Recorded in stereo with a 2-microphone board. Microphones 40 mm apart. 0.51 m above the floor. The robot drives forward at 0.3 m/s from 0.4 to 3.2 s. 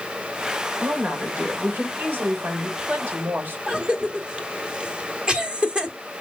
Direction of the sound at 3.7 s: 25° right (ahead or behind).